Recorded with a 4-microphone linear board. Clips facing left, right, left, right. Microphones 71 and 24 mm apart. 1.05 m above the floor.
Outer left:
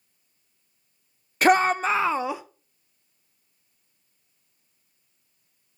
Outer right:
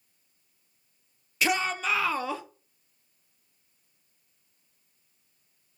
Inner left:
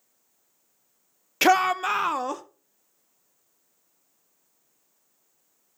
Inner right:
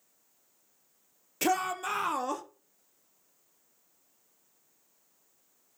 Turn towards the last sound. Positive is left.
turn(degrees=15)  # may be behind; listen again after turning